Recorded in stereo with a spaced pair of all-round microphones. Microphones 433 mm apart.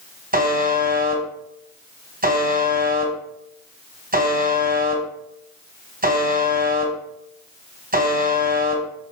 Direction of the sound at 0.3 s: 20° right (ahead or behind).